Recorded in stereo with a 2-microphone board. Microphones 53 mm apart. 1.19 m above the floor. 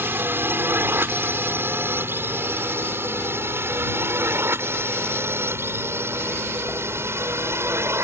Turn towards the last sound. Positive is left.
turn(degrees=-55)  # may be behind; listen again after turning